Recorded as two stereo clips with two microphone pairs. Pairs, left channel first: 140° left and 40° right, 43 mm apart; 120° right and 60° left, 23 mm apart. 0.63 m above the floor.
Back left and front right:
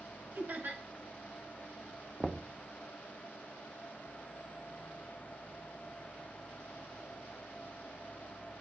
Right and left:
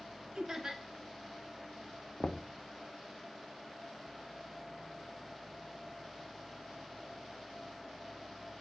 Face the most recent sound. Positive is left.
turn(degrees=-135)